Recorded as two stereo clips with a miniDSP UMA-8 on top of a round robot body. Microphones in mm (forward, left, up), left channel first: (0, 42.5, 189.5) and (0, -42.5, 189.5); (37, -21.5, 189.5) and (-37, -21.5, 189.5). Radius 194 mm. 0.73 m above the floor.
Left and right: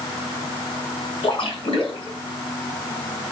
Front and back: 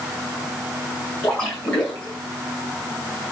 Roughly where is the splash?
Left.